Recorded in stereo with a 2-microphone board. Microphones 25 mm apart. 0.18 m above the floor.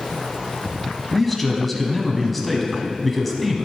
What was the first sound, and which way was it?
A man speaking, 5° left (ahead or behind).